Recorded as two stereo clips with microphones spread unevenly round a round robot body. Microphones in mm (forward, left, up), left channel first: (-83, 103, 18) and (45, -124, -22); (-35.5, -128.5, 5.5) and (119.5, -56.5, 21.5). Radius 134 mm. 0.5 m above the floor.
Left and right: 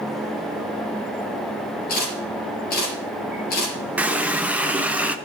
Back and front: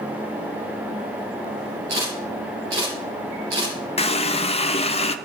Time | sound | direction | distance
1.9 | a camera shutter | 60° left | 4.5 m
4.0 | a running tap | 135° right | 0.6 m